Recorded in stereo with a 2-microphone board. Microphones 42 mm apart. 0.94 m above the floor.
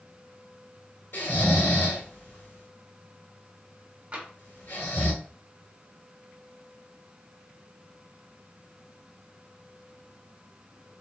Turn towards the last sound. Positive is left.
turn(degrees=-35)  # may be behind; listen again after turning